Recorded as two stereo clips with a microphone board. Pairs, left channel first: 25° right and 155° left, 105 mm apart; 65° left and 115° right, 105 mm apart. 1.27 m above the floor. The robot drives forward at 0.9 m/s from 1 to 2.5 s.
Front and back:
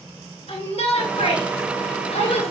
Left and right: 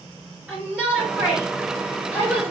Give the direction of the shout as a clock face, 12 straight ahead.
1 o'clock.